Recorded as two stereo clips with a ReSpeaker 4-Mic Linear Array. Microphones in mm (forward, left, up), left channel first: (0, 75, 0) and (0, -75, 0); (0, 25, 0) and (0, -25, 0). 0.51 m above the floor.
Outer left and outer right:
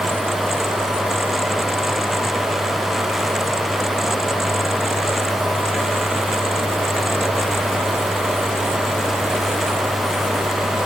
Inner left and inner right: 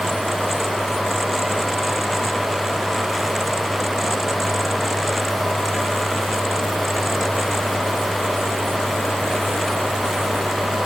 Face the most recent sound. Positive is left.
No sound to turn to.